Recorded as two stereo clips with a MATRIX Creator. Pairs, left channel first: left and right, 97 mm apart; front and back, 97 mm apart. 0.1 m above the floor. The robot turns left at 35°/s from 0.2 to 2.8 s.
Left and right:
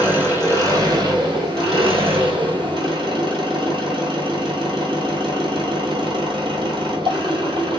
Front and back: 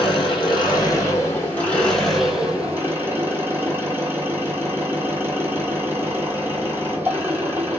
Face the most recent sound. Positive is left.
turn(degrees=-110)